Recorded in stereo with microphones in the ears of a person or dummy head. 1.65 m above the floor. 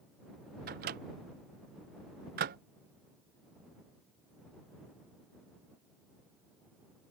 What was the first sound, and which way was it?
A microwave, 40° right (ahead or behind).